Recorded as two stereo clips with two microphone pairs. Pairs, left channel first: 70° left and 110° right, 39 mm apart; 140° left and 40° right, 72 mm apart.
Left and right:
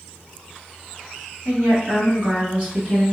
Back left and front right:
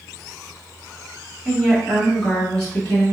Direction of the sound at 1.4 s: 110° right.